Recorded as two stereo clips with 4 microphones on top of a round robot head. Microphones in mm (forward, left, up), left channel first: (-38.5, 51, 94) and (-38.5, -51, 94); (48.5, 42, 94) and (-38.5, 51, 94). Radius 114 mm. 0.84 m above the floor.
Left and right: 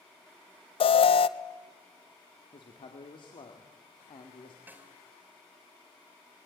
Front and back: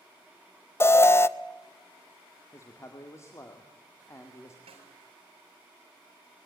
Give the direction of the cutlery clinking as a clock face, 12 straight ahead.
No cutlery clinking in this recording.